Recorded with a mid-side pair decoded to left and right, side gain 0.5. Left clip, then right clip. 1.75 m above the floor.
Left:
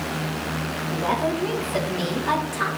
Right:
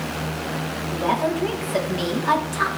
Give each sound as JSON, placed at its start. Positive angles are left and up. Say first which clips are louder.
{"t": 0.9, "sound": "a woman speaking", "louder": "right 2 dB", "azimuth_deg": -15, "distance_m": 4.0}